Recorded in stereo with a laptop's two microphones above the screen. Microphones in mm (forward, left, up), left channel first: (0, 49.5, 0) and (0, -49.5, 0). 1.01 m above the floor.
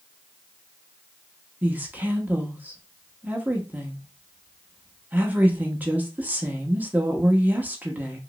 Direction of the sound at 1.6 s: 15° right (ahead or behind).